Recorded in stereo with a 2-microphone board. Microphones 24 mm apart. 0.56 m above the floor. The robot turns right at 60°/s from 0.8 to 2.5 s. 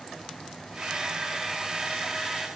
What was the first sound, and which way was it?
A camera shutter, 80° right.